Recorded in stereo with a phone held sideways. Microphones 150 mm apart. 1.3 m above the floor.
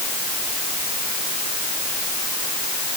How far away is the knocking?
I don't hear knocking.